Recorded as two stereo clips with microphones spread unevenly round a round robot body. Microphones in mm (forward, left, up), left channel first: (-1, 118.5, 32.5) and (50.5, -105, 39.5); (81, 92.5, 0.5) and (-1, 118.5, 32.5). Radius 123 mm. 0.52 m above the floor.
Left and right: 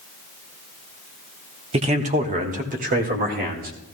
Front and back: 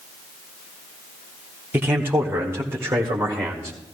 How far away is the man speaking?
About 1.1 m.